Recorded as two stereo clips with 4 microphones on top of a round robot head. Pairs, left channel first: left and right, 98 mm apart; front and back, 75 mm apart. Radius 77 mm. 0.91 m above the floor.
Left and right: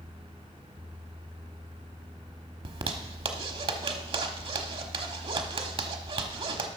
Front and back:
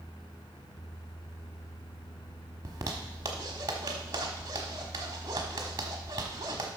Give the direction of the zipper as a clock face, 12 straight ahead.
4 o'clock.